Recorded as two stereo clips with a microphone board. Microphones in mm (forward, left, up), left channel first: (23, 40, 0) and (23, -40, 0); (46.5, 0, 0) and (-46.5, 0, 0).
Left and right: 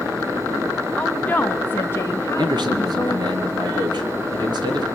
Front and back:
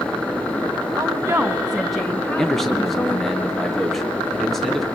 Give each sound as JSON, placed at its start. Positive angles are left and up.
{"t": 1.0, "sound": "a woman speaking", "azimuth_deg": 155, "distance_m": 1.9}
{"t": 2.4, "sound": "a man speaking", "azimuth_deg": -85, "distance_m": 3.0}